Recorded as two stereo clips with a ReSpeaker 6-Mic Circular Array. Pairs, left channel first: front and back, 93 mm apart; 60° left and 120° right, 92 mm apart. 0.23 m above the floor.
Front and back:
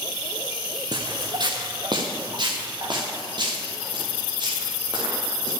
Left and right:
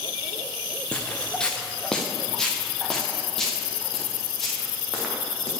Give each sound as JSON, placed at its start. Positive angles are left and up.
{"t": 0.9, "sound": "footsteps", "azimuth_deg": 140, "distance_m": 1.0}